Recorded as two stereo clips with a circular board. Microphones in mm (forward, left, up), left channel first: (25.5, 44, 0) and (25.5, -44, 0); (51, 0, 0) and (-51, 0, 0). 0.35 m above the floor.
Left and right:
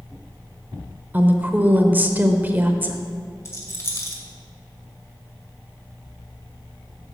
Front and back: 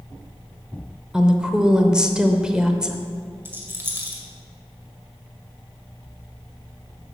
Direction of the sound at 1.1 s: 110° right.